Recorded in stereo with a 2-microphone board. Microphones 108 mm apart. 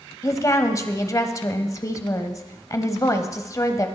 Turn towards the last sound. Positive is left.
turn(degrees=30)  # may be behind; listen again after turning